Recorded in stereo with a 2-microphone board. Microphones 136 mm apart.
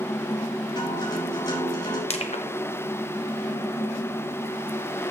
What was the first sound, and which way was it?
A guitar, 30° left (ahead or behind).